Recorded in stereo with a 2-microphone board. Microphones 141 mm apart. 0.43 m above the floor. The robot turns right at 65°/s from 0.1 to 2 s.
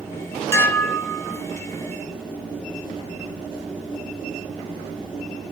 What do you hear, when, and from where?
0.5 s dishes clattering: 15° left (ahead or behind), 0.6 m; by 1.4 s 5° right (ahead or behind), 0.6 m